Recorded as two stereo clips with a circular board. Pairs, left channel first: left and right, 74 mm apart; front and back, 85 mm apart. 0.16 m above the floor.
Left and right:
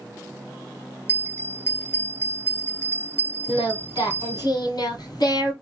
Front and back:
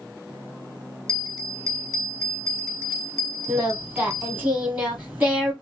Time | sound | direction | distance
1.1 | a bell | 140° left | 1.2 m
3.5 | singing | 115° left | 1.7 m